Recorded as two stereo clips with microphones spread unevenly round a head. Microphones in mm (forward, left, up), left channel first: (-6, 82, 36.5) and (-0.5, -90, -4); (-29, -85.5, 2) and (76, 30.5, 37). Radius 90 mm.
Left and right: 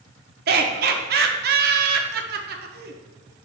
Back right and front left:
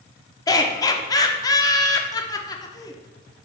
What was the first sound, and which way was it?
Laughter, 60° right.